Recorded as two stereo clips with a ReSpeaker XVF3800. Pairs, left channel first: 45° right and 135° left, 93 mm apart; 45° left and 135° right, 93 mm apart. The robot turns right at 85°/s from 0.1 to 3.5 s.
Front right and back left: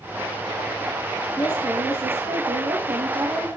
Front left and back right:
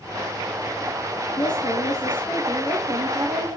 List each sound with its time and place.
1.4 s a woman speaking: 30° left, 4 m; by 3.6 s 150° right, 4 m